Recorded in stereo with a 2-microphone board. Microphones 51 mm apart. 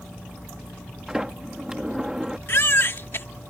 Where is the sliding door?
10° right (ahead or behind).